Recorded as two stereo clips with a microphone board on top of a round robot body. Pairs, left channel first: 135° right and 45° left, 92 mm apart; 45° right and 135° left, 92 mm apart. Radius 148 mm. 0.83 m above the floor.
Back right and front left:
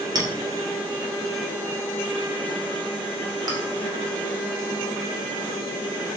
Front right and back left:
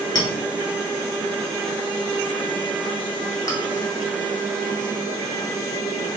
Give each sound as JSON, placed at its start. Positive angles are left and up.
{"t": 0.1, "sound": "a clink", "azimuth_deg": 0, "distance_m": 1.0}